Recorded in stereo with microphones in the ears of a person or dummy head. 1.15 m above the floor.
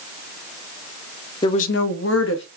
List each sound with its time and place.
1.4 s a woman speaking: 20° left (ahead or behind), 0.5 m; by 2.4 s 65° left (ahead or behind), 1.0 m